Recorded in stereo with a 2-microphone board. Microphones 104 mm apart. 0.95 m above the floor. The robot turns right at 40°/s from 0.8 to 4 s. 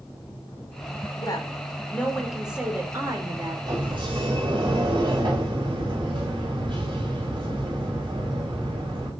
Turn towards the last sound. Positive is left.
turn(degrees=-55)  # may be behind; listen again after turning